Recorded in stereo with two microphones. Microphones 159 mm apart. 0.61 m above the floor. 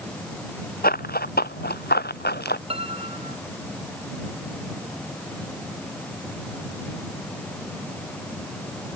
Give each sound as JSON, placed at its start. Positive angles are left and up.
{"t": 0.8, "sound": "running footsteps", "side_deg": 70}
{"t": 2.7, "sound": "a piano", "side_deg": -35}